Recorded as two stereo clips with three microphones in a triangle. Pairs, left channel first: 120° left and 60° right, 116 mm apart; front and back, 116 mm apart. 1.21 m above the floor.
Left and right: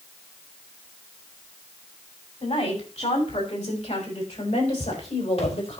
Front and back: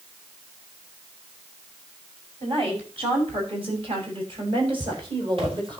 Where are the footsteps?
135° left, 3 m; by 5.8 s 150° left, 3 m.